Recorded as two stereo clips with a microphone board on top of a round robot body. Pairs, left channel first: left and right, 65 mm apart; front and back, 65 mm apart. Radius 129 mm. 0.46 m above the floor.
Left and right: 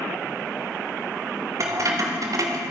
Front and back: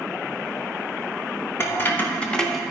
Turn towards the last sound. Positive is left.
turn(degrees=-95)